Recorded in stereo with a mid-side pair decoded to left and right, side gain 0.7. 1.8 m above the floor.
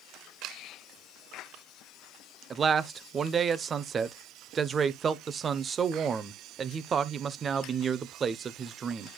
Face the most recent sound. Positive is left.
turn(degrees=-30)